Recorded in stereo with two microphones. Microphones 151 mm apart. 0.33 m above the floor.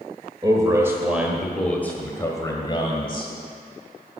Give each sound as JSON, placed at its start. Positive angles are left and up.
{"t": 0.4, "sound": "a man speaking", "side_deg": -30, "distance_m": 1.4}